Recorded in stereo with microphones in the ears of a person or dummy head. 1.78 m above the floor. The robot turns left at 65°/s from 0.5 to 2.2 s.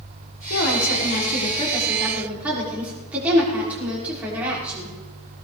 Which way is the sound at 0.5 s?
105° left.